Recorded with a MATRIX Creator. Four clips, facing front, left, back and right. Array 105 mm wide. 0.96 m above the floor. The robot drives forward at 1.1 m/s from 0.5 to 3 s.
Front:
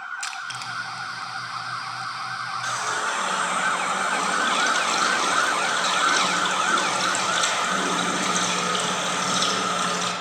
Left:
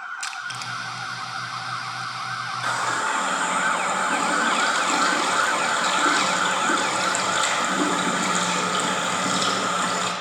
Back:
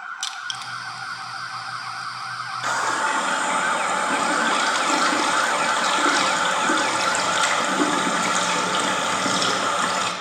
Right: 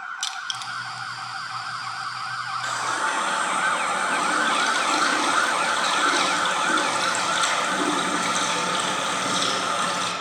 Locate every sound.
0.2 s crushing: 45° left, 0.6 m; by 0.7 s 95° left, 0.6 m
2.6 s a running tap: 150° left, 0.6 m; by 10.1 s 165° left, 0.9 m